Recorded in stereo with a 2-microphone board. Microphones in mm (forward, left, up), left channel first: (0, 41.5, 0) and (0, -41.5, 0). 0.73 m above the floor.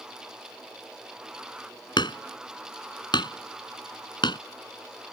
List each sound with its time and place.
2.0 s hammering: 75° left (ahead or behind)